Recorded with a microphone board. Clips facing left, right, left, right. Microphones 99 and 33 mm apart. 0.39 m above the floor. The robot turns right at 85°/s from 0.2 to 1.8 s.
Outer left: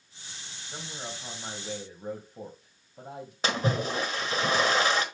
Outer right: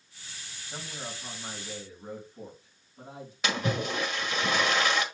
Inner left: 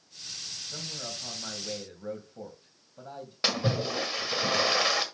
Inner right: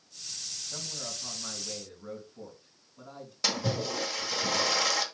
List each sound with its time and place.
0.7 s a man speaking: 15° right, 2.5 m; by 3.3 s 80° left, 2.5 m
3.4 s a splash: 35° left (ahead or behind), 1.4 m